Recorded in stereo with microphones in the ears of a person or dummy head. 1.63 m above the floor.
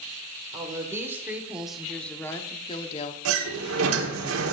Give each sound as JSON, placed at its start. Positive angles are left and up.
{"t": 0.5, "sound": "a woman speaking", "side_deg": -20, "distance_m": 2.0}
{"t": 3.2, "sound": "a sliding door", "side_deg": -80, "distance_m": 1.6}